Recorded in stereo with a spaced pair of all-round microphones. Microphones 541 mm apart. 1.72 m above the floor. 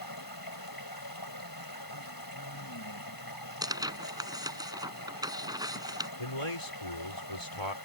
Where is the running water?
40° left (ahead or behind).